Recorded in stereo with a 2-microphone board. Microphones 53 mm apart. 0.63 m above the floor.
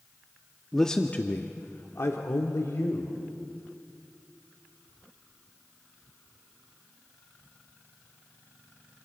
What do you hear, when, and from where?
0.7 s a man speaking: 5° left (ahead or behind), 0.8 m; by 3.2 s 75° left (ahead or behind), 2 m